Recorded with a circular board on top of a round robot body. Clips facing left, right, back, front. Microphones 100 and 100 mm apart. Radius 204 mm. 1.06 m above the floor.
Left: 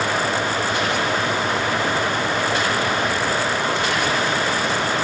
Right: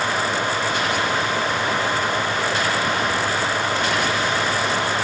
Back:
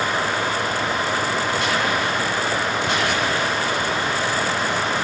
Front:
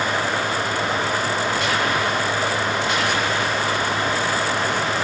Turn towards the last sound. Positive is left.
No sound to turn to.